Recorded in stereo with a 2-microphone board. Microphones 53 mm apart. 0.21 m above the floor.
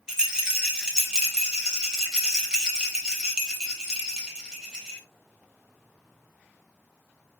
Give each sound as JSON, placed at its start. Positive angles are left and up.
{"t": 0.1, "sound": "a rattle", "side_deg": -15, "distance_m": 3.5}